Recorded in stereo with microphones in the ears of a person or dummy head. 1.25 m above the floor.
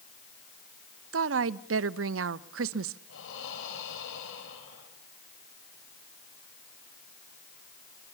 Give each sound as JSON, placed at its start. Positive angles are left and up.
{"t": 1.1, "sound": "a woman speaking", "side_deg": -85, "distance_m": 0.8}
{"t": 3.1, "sound": "breathing", "side_deg": 85, "distance_m": 6.0}